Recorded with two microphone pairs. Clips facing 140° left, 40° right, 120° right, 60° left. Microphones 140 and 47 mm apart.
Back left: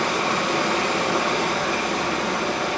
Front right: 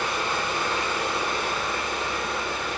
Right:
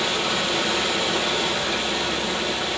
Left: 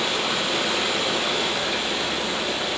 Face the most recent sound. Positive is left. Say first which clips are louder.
# back left 5 dB, right 1 dB
turn(degrees=140)